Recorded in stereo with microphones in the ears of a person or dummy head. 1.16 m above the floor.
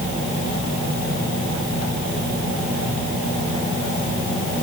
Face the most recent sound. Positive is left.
No sound to turn to.